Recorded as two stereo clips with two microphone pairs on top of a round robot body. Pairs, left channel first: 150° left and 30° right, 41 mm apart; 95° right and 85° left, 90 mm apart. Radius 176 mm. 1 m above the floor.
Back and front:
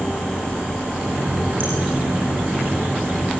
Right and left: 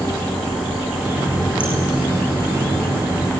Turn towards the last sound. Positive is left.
turn(degrees=5)